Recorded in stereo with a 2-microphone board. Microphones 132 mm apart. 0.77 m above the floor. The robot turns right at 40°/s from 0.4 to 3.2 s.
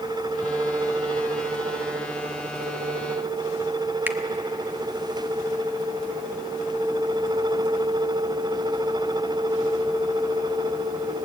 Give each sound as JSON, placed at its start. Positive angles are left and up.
{"t": 4.1, "sound": "a finger snap", "side_deg": -15, "distance_m": 1.1}